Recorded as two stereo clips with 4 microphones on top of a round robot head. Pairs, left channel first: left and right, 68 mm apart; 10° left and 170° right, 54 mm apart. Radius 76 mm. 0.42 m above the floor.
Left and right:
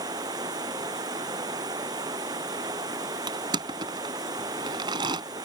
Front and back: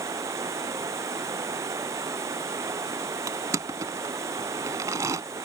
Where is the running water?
125° right.